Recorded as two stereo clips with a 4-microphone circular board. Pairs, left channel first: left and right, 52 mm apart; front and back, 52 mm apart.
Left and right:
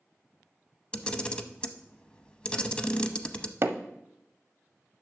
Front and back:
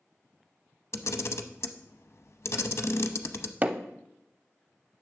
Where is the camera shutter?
20° left, 0.6 m.